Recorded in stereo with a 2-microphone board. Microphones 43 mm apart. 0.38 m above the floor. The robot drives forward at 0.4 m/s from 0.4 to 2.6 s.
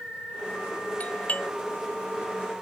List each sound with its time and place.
1.0 s a doorbell: 40° left (ahead or behind); by 1.5 s 35° left (ahead or behind)